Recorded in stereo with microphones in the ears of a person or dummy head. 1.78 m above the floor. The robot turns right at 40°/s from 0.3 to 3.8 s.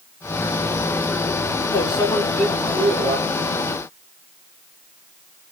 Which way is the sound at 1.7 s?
150° left.